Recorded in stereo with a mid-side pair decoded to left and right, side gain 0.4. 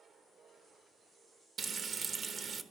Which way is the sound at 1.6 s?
55° right.